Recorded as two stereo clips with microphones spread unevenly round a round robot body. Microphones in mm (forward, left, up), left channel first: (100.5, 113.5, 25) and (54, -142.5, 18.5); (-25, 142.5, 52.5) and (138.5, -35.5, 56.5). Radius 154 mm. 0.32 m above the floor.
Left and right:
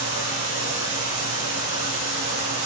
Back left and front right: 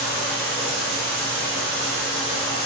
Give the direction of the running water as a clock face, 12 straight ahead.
5 o'clock.